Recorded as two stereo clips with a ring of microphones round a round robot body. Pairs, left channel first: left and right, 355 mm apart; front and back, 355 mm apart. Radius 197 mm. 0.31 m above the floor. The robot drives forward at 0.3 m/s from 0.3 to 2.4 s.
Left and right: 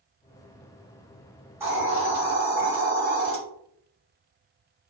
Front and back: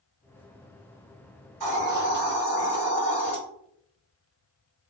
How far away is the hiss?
About 1.3 m.